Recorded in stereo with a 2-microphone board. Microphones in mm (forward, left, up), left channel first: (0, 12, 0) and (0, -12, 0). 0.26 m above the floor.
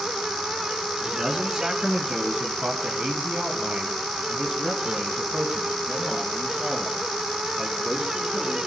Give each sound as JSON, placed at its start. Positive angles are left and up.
{"t": 1.0, "sound": "a man speaking", "side_deg": -30, "distance_m": 4.0}